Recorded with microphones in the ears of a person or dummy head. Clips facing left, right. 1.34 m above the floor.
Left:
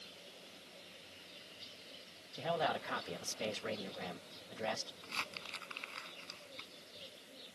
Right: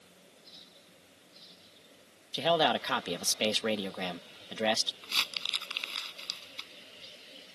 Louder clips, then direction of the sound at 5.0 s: Right 2 dB; 50° right (ahead or behind).